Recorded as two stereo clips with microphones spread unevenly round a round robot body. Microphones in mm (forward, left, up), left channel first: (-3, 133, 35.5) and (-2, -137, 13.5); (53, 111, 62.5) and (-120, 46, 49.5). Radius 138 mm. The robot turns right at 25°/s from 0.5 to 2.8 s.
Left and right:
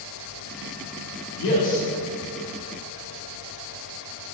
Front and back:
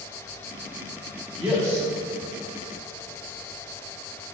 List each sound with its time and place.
1.4 s a man speaking: 120° left, 1.4 m; by 1.9 s 130° left, 1.4 m